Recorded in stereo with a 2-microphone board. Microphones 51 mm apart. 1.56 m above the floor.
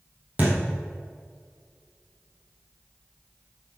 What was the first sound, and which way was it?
A thud, 35° right (ahead or behind).